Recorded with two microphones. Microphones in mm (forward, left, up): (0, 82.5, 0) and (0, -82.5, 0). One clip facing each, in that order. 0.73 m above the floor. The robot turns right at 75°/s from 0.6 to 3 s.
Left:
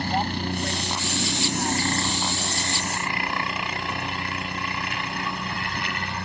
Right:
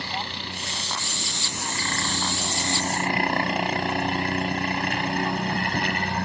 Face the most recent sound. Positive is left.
turn(degrees=-50)  # may be behind; listen again after turning